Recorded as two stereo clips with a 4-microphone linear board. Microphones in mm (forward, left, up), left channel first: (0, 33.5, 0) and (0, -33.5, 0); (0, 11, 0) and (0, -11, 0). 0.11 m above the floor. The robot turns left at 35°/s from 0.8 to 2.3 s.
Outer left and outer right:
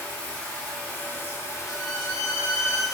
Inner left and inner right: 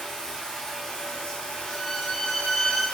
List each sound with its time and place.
0.0 s running water: 160° left, 1.0 m; by 3.0 s 105° left, 1.0 m
1.7 s a violin: 25° left (ahead or behind), 1.2 m; by 2.9 s 40° left (ahead or behind), 1.2 m